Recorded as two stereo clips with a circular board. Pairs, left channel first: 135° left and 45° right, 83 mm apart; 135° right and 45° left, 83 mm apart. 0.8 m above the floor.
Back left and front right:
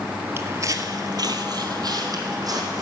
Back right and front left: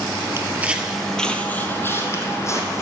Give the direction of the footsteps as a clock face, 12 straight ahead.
12 o'clock.